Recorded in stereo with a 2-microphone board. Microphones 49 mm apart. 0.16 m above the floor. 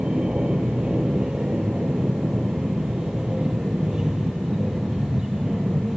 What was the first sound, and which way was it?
An aircraft, 15° right (ahead or behind).